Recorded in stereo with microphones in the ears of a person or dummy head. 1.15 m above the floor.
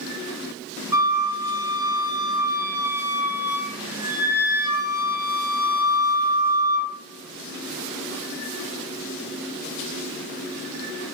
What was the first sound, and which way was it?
A flute, 20° right (ahead or behind).